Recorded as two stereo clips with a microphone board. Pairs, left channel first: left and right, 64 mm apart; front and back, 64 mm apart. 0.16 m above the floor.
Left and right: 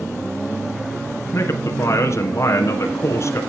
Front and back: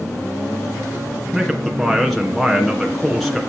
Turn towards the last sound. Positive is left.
turn(degrees=85)